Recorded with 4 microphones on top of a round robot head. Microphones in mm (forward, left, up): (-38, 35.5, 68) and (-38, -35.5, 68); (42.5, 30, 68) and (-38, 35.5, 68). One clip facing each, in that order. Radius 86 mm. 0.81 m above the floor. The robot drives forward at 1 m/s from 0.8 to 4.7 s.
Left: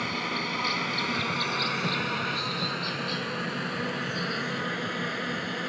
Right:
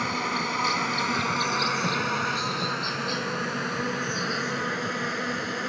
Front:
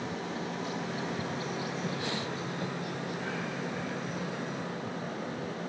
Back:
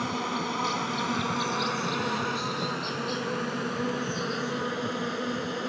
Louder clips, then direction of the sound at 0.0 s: Right 3 dB, back 6 dB; 160° right.